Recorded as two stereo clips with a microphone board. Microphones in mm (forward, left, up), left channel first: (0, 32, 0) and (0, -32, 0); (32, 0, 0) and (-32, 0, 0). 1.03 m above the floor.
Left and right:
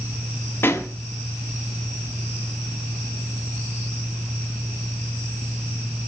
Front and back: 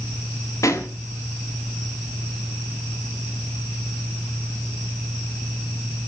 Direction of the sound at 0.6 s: 40° left.